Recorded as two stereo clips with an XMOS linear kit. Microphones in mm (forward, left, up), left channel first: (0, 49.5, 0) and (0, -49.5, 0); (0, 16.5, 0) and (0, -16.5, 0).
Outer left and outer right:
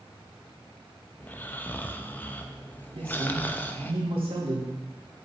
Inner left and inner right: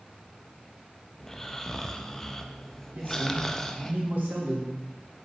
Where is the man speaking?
80° right, 3 m.